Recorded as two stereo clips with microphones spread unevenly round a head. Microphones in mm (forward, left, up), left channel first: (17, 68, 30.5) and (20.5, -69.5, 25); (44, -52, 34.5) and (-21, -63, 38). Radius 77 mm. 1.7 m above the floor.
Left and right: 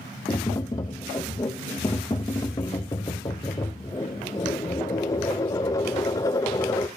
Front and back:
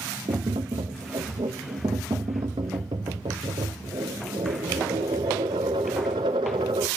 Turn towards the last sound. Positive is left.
turn(degrees=160)